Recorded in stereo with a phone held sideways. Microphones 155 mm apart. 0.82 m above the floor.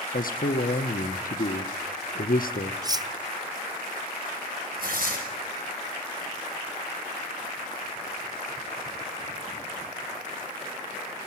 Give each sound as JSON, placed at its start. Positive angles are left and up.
{"t": 0.1, "sound": "a man speaking", "side_deg": 65, "distance_m": 1.2}
{"t": 2.8, "sound": "cutlery clinking", "side_deg": -25, "distance_m": 0.6}
{"t": 4.8, "sound": "tearing paper", "side_deg": -70, "distance_m": 4.5}